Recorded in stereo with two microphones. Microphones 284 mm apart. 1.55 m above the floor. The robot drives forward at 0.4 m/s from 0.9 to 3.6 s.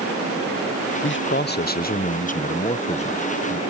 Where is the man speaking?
45° left (ahead or behind); by 3.6 s 20° left (ahead or behind).